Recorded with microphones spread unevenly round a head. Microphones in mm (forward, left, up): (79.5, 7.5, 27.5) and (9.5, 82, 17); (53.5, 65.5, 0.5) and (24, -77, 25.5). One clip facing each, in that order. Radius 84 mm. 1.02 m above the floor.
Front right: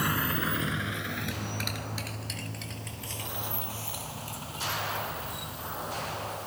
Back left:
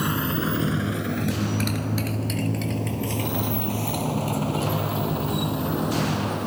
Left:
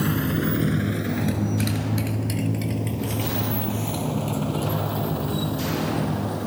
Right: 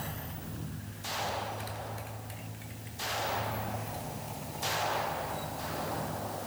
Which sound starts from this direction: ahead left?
A motorcycle, at 0.0 s.